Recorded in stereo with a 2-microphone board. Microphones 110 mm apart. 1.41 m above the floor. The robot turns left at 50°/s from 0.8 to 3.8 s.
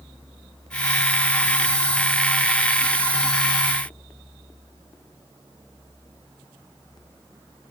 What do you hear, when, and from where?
Only background noise.